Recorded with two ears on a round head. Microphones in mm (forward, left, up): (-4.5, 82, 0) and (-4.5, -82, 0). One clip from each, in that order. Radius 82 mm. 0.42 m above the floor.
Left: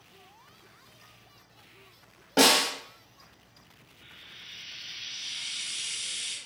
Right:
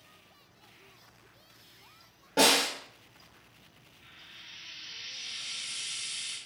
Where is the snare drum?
25° left (ahead or behind), 1.2 m.